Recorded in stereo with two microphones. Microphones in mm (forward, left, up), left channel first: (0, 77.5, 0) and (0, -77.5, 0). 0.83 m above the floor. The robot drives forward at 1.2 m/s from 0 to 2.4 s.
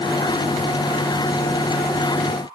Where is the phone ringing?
I don't hear a phone ringing.